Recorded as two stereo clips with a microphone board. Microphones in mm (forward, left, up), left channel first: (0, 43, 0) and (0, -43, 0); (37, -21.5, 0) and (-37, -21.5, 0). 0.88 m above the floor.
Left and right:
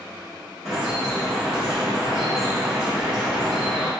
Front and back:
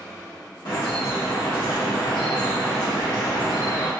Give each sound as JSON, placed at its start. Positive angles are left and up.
{"t": 0.7, "sound": "dripping", "azimuth_deg": -5, "distance_m": 1.1}